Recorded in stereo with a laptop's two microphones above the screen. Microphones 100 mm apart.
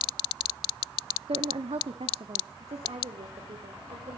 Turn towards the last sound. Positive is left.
turn(degrees=-75)  # may be behind; listen again after turning